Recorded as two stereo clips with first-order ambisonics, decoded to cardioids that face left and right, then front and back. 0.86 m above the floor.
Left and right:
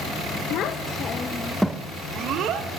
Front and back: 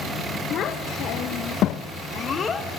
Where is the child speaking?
50° left, 0.8 m; by 2.7 s 70° right, 0.8 m.